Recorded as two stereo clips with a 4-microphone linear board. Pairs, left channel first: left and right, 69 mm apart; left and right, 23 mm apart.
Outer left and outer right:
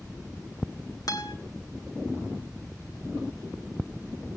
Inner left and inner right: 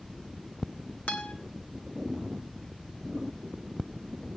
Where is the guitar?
70° left (ahead or behind), 2.5 m.